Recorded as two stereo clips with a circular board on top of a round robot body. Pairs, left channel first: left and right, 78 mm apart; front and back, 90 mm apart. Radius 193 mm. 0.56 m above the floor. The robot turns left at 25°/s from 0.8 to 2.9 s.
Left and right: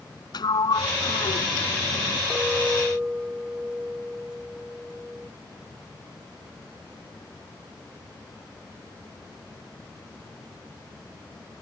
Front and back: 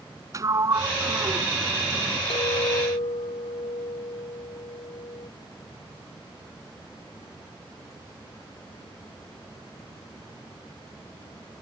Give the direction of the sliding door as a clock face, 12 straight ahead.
8 o'clock.